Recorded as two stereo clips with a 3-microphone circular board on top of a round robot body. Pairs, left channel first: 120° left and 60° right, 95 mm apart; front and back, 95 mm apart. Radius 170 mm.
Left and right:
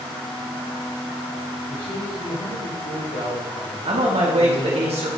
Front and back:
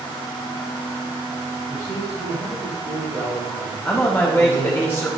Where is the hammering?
No hammering in this recording.